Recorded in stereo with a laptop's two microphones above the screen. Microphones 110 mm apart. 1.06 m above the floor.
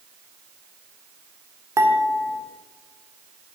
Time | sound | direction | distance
1.8 | dishes clattering | 25° right (ahead or behind) | 2 m